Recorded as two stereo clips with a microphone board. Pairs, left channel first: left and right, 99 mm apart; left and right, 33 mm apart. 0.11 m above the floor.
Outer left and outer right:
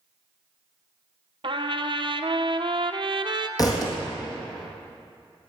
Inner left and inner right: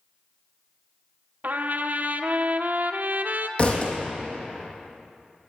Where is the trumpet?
60° right (ahead or behind), 0.6 m.